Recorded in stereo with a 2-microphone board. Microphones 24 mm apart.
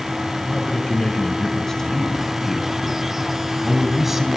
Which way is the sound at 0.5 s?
35° left (ahead or behind).